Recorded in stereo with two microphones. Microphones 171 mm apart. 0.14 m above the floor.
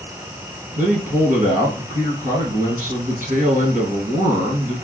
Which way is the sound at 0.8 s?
55° right (ahead or behind).